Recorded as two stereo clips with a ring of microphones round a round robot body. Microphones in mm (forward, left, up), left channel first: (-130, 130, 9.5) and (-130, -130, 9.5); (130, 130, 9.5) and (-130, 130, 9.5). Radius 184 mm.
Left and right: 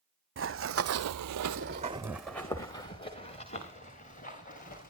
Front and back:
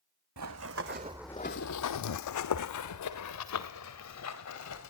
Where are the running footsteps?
135° right, 1.3 m; by 4.9 s 20° left, 3.5 m.